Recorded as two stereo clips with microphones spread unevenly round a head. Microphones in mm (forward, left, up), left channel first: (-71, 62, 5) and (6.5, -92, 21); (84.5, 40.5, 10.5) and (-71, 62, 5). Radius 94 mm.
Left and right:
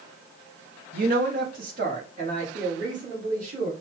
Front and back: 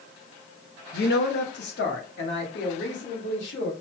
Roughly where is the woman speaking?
Ahead.